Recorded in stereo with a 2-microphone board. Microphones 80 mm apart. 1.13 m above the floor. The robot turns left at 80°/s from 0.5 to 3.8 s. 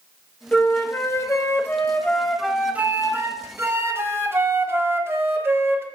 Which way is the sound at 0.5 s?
150° left.